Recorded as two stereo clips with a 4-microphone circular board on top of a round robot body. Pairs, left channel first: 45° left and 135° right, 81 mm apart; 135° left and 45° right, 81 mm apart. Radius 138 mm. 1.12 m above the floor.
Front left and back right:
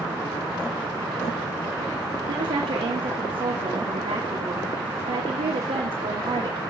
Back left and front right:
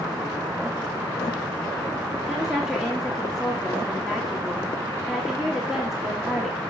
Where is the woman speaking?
130° right, 2 m.